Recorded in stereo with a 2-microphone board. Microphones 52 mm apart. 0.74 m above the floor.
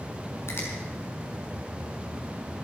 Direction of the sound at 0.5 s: 55° left (ahead or behind).